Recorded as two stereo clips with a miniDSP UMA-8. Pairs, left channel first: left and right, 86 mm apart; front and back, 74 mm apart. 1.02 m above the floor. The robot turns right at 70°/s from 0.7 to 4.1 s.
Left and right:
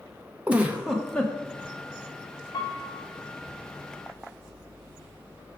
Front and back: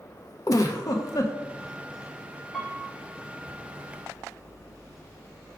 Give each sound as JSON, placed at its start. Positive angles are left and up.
{"t": 0.5, "sound": "a giggle", "azimuth_deg": -20, "distance_m": 0.6}
{"t": 2.5, "sound": "a piano", "azimuth_deg": 95, "distance_m": 1.2}